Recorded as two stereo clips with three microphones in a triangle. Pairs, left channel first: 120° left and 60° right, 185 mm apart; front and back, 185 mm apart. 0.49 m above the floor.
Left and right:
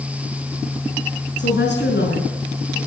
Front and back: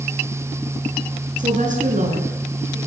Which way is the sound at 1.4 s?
135° left.